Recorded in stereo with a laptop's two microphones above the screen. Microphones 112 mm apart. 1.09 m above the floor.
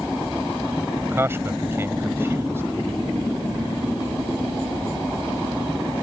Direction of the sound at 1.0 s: 25° right (ahead or behind).